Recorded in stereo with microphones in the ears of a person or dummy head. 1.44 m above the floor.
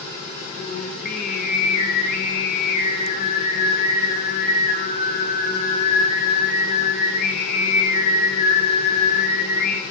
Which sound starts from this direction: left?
Singing, at 0.6 s.